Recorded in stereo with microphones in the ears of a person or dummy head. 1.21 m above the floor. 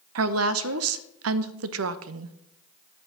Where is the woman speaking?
75° right (ahead or behind), 0.7 m.